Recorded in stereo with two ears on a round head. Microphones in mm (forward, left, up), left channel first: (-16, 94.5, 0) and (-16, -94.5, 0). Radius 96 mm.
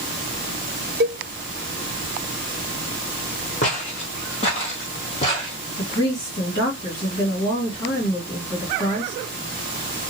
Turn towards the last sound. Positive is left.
turn(degrees=35)  # may be behind; listen again after turning